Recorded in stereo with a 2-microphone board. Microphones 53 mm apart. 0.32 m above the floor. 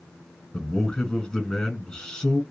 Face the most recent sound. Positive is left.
turn(degrees=15)  # may be behind; listen again after turning